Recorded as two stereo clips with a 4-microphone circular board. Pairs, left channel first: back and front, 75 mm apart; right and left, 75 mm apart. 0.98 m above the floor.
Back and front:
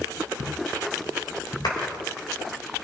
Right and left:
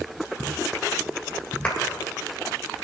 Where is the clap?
165° right, 3.5 m.